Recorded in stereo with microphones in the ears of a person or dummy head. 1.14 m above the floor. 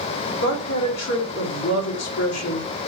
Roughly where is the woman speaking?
Left.